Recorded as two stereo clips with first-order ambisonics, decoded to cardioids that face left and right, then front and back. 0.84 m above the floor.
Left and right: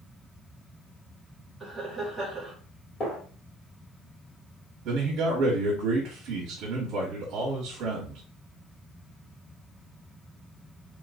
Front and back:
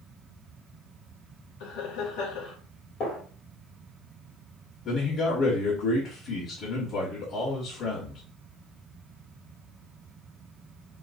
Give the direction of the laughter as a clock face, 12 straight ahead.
12 o'clock.